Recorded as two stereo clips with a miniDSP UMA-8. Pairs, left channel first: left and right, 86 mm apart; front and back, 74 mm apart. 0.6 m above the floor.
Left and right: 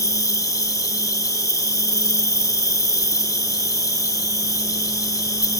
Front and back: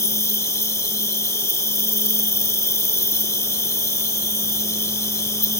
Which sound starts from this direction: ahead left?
An insect, at 0.0 s.